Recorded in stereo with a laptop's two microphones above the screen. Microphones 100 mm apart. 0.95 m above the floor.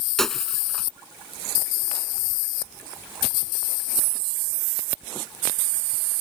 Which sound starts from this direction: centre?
Breaking glass, at 0.2 s.